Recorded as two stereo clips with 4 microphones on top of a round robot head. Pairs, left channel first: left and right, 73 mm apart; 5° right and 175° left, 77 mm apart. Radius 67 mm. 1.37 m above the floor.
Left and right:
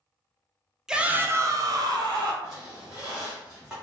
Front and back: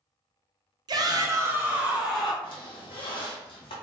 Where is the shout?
170° right, 0.7 m; by 2.3 s 100° right, 1.1 m.